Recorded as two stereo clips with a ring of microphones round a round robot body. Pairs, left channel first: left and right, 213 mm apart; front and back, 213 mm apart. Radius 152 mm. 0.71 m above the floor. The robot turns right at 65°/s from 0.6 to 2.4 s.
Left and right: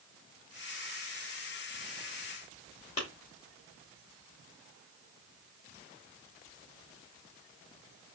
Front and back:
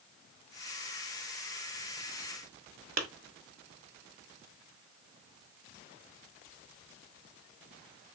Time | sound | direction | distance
3.0 | a clap | 155° left | 1.3 m